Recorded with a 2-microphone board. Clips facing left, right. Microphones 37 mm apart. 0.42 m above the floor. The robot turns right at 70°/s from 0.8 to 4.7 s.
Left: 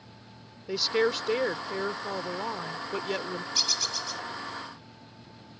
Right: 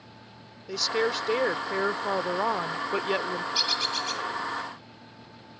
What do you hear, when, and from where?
0.7 s a woman speaking: 160° left; by 3.5 s 15° right
3.5 s a bird: 155° right; by 4.2 s 110° right